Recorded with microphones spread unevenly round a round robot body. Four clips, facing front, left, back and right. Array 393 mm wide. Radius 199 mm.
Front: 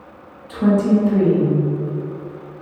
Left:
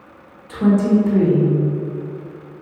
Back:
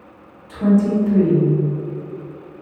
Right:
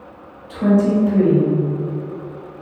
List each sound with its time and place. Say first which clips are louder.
0.5 s a woman speaking: even, front 1 dB; 110° left, 2 m